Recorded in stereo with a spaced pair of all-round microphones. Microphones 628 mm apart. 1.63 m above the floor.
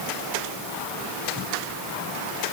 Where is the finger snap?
No finger snap in this recording.